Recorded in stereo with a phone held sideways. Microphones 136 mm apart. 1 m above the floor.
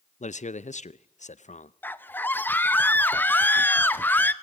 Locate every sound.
0.2 s a man speaking: 60° left (ahead or behind), 0.6 m
1.8 s a scream: 15° left (ahead or behind), 0.7 m